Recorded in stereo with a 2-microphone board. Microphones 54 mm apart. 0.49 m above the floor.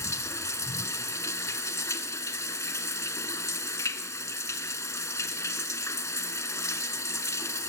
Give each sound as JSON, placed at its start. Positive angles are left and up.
{"t": 0.0, "sound": "running water", "side_deg": 75, "distance_m": 0.9}